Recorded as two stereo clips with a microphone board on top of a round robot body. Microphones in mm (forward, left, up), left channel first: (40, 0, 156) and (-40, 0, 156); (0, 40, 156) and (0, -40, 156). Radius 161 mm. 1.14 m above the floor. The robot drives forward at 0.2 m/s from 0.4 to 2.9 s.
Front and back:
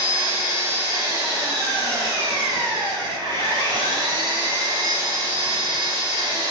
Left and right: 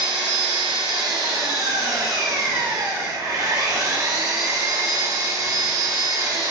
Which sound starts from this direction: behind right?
An engine running, at 0.0 s.